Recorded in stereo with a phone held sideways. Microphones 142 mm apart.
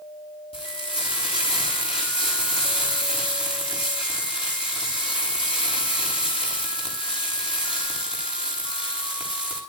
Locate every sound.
0.5 s frying: 40° left (ahead or behind), 8 m